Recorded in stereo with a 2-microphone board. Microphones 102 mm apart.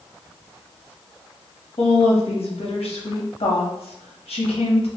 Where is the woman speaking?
85° left, 1.0 m.